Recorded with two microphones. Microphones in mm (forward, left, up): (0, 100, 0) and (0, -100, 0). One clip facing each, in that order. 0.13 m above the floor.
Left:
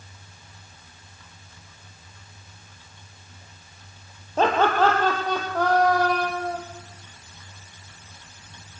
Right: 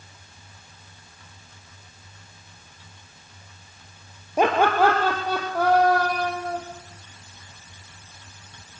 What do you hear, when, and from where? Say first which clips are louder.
4.4 s laughter: right 1 dB; 15° right (ahead or behind), 2.5 m; by 6.6 s 5° right (ahead or behind), 6 m